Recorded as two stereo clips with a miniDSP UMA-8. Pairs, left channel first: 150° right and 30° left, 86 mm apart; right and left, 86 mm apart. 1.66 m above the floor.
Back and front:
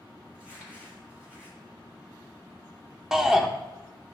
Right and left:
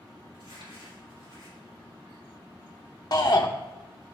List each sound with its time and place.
0.3 s crumpling: 105° left, 4 m
3.1 s a shout: 55° right, 1.0 m